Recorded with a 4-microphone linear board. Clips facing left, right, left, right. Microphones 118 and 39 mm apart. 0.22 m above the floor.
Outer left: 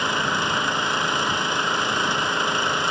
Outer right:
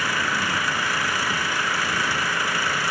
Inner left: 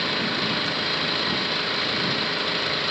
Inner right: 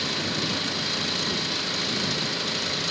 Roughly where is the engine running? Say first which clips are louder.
Outer left 2 dB, inner left 3 dB; left.